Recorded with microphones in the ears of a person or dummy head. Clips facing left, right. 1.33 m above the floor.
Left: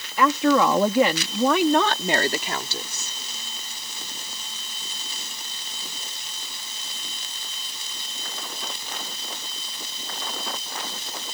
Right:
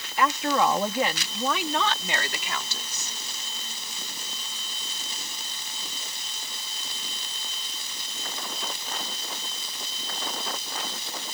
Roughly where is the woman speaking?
Left.